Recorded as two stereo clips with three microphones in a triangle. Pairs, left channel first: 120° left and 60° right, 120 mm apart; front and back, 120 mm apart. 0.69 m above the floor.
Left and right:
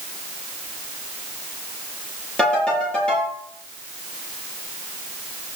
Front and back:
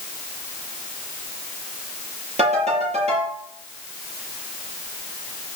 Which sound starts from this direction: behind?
A ringtone, at 2.4 s.